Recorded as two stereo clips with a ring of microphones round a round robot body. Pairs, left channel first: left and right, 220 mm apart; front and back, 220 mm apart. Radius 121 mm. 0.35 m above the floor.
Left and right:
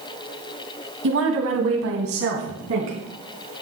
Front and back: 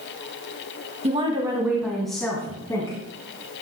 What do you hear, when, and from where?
1.0 s a woman speaking: 120° right, 2.5 m; by 3.0 s 70° right, 3.5 m